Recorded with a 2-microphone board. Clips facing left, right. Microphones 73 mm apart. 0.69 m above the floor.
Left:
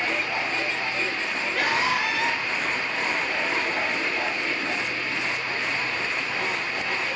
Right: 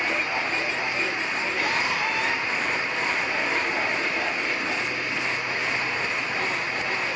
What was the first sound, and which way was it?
A scream, 85° left.